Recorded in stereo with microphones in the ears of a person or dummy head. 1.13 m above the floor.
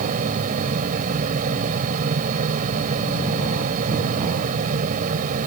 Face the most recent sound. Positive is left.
turn(degrees=-45)  # may be behind; listen again after turning